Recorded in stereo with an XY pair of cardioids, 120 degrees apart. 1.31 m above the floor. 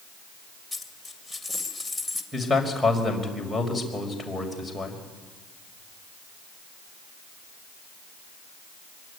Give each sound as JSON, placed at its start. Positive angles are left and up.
{"t": 0.7, "sound": "a dropped coin", "azimuth_deg": 5, "distance_m": 2.5}
{"t": 2.3, "sound": "a man speaking", "azimuth_deg": 5, "distance_m": 5.5}